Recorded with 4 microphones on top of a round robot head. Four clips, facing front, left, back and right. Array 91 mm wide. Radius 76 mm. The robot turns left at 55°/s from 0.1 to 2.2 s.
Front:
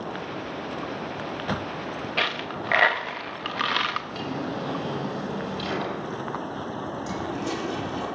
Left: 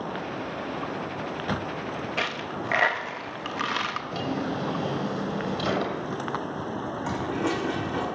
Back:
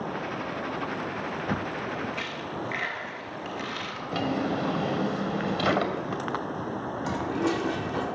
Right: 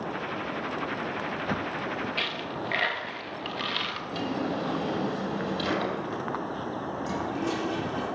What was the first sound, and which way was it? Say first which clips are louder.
A dropped coin: left 2 dB, front 5 dB; 30° left.